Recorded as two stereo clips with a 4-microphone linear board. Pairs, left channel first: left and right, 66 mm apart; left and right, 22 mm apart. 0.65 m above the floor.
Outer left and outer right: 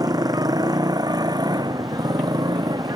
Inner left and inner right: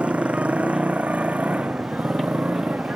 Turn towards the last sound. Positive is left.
turn(degrees=-85)